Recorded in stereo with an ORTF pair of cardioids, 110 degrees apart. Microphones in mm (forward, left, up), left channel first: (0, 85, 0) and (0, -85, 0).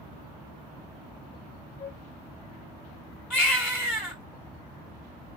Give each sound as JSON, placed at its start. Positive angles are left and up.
{"t": 1.8, "sound": "a flute", "azimuth_deg": 25, "distance_m": 1.6}
{"t": 3.3, "sound": "a baby crying", "azimuth_deg": 0, "distance_m": 3.0}